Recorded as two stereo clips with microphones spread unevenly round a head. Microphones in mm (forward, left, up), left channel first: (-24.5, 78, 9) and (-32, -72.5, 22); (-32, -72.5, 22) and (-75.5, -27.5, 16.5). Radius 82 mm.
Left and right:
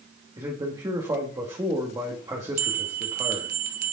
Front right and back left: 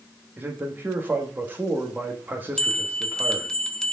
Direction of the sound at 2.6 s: 125° right.